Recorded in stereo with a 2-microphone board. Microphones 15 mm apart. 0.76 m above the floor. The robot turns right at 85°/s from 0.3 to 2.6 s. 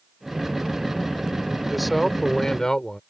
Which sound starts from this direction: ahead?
A man speaking, at 1.6 s.